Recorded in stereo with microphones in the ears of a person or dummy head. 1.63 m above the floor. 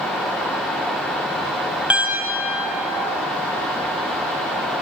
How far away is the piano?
About 0.9 m.